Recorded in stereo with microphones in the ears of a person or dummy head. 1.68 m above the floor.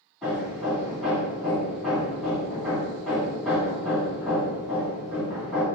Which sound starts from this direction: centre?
Hammering, at 0.2 s.